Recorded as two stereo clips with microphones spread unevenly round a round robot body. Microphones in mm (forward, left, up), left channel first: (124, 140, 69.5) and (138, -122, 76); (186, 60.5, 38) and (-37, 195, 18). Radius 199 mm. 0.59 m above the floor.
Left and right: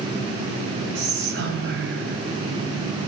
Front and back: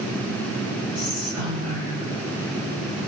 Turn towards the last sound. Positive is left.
turn(degrees=-135)